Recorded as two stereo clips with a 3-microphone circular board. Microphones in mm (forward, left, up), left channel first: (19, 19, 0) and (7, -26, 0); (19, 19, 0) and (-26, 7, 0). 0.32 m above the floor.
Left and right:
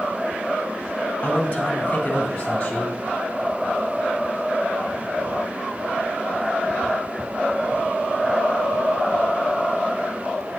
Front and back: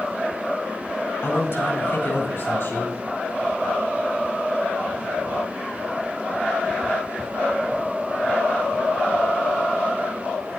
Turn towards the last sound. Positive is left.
turn(degrees=15)